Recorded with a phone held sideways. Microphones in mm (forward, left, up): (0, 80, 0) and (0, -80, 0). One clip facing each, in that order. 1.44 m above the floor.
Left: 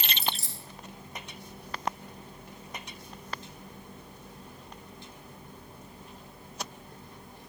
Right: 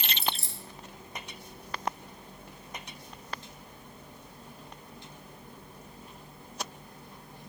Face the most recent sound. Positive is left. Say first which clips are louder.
# right 1 dB
turn(degrees=-60)  # may be behind; listen again after turning